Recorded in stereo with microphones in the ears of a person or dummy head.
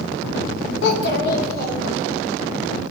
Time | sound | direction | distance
0.8 | a child speaking | 70° left (ahead or behind) | 1.0 m